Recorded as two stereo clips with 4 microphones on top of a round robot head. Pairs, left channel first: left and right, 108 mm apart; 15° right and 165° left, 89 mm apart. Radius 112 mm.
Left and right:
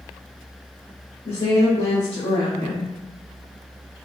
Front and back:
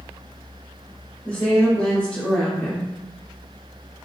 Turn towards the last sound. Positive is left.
turn(degrees=65)